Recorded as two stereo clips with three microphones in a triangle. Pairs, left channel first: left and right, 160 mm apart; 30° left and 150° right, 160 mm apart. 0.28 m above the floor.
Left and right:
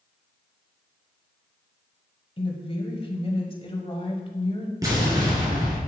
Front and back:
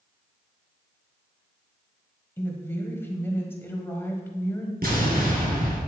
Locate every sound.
2.4 s a woman speaking: 95° left, 1.5 m
4.8 s an explosion: 155° right, 3 m